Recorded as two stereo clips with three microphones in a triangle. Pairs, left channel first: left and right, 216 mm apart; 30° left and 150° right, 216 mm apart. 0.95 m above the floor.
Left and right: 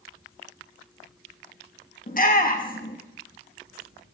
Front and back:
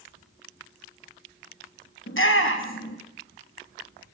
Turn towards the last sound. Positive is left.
turn(degrees=45)